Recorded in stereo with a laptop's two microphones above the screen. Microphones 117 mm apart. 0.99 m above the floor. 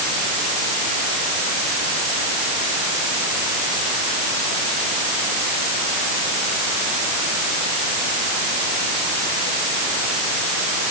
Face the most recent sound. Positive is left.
No sound to turn to.